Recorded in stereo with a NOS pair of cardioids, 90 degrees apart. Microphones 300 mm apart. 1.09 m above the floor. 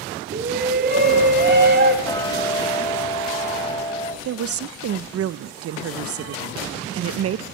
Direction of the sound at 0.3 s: 35° right.